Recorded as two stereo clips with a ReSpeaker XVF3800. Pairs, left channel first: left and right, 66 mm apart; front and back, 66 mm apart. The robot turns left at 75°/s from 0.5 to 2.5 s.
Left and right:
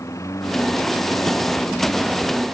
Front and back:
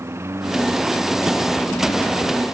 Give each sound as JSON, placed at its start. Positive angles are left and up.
{"t": 0.0, "sound": "a lawn mower", "azimuth_deg": 130}